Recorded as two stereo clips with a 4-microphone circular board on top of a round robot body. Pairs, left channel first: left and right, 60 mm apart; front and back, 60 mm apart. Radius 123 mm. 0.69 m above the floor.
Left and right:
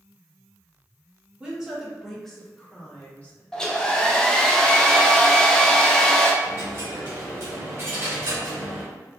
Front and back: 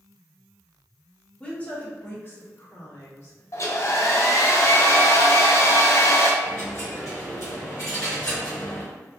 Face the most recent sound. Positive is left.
turn(degrees=-45)